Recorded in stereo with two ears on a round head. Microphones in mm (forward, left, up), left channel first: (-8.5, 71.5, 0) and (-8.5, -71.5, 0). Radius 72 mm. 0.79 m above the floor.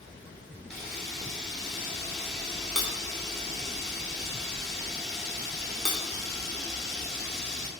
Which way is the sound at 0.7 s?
5° left (ahead or behind).